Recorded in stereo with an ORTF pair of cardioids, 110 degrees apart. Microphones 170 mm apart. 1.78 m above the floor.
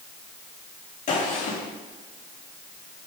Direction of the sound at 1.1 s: 45° left.